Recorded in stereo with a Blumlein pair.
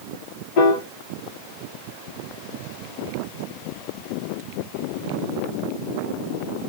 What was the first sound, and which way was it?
A piano, 50° left.